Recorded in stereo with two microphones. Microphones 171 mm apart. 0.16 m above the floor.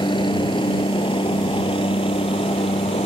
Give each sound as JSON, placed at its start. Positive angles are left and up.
{"t": 0.0, "sound": "a helicopter", "side_deg": 25}